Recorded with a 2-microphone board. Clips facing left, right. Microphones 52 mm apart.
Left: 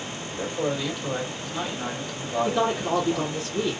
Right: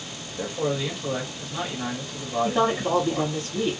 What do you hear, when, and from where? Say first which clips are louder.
0.4 s a man speaking: right 1 dB; 5° right (ahead or behind), 2 m
2.5 s a woman speaking: right 2 dB; 30° right (ahead or behind), 1.4 m